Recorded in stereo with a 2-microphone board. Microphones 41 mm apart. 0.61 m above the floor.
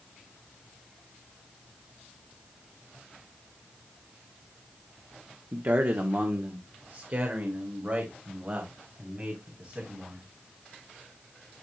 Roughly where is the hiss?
No hiss in this recording.